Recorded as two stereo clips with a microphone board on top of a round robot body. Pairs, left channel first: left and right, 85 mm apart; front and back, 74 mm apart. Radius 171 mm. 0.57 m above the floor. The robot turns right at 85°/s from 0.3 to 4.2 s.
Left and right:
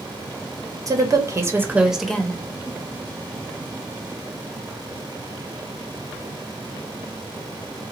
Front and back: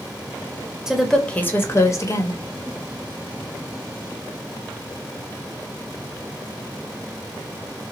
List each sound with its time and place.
0.9 s a woman speaking: 100° right, 1.4 m; by 2.4 s 25° left, 1.4 m